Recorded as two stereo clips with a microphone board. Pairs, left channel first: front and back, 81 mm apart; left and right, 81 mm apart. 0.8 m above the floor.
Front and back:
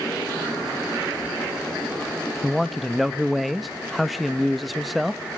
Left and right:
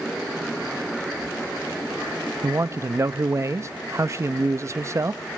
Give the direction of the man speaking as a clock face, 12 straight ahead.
3 o'clock.